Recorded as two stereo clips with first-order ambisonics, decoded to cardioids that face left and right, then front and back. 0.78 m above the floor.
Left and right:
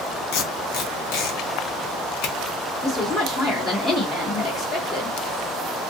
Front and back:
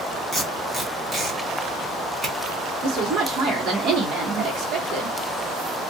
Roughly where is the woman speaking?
Behind left.